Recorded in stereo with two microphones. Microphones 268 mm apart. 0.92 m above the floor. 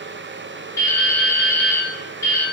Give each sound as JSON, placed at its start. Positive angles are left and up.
{"t": 0.8, "sound": "dripping", "side_deg": 10, "distance_m": 1.2}